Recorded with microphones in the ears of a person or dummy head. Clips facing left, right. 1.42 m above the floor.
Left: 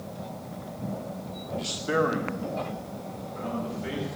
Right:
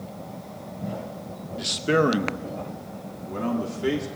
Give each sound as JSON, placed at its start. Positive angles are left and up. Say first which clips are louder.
{"t": 1.6, "sound": "a man speaking", "louder": "right 5 dB", "side_deg": -20, "distance_m": 1.2}